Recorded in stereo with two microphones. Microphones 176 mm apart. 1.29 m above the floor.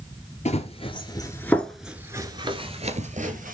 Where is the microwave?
No microwave in this recording.